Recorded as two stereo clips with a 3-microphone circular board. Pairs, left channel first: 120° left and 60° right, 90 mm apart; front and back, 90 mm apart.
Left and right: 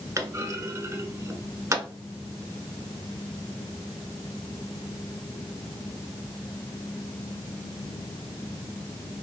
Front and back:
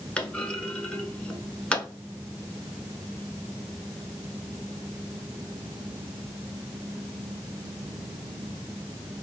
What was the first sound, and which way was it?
A clunk, 70° right.